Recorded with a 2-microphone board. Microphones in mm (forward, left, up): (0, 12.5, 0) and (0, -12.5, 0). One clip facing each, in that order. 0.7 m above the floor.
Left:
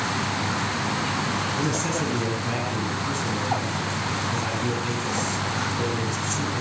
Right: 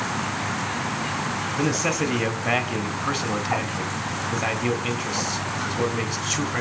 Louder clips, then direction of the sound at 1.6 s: Right 2 dB; 50° right (ahead or behind).